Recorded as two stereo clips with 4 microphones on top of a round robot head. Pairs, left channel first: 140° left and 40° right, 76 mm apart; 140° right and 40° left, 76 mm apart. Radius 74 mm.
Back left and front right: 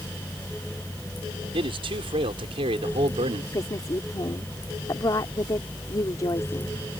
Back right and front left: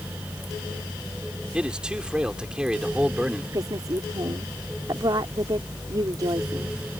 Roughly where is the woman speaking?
Left.